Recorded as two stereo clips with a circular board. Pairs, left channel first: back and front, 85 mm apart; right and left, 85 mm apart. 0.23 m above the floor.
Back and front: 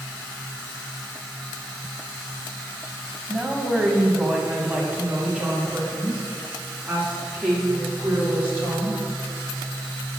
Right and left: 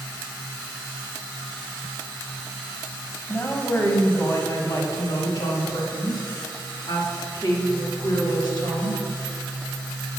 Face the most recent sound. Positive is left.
turn(degrees=-70)